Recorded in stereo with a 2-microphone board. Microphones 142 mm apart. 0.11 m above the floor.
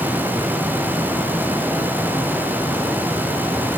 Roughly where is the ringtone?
I don't hear a ringtone.